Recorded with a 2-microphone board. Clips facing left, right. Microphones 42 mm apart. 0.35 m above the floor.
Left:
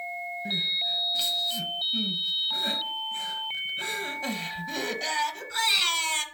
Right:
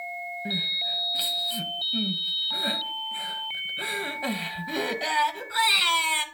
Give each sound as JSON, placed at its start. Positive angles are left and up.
{"t": 0.5, "sound": "crying", "side_deg": -20, "distance_m": 0.7}